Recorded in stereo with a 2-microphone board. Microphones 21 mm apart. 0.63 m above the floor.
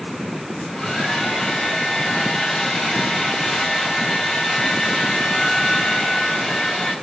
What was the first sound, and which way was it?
A hair dryer, 45° left (ahead or behind).